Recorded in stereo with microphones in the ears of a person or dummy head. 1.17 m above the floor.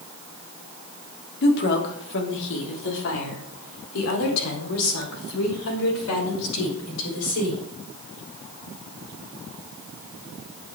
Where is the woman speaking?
55° left (ahead or behind), 3 m; by 7.6 s 85° left, 6.5 m.